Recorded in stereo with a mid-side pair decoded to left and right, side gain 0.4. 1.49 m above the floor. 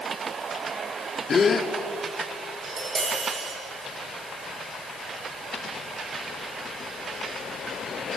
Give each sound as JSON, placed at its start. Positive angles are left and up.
{"t": 1.3, "sound": "a gasp", "azimuth_deg": 40, "distance_m": 2.0}
{"t": 2.6, "sound": "tapping", "azimuth_deg": -60, "distance_m": 8.0}